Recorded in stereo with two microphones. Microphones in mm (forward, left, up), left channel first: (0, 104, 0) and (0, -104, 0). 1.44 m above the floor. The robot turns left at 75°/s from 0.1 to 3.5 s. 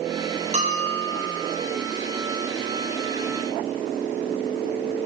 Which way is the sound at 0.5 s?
30° right.